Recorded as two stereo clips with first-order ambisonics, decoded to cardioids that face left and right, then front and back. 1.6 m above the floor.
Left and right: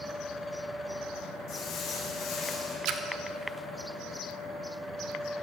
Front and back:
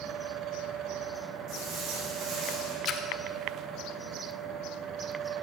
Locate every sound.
1.5 s footsteps: 130° left, 5.5 m; by 2.8 s 150° left, 5 m
2.9 s a splash: 55° right, 1.0 m